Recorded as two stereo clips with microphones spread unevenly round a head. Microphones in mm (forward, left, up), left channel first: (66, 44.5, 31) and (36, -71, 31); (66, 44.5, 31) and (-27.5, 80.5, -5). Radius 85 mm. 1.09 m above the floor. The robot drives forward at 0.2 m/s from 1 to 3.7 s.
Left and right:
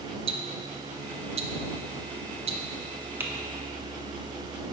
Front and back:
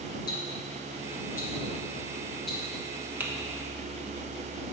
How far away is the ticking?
About 0.6 m.